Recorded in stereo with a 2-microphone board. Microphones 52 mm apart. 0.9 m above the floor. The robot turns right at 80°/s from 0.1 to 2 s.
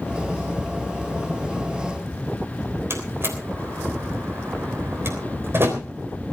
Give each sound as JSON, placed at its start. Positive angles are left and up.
{"t": 2.9, "sound": "a door slam", "side_deg": -55, "distance_m": 3.5}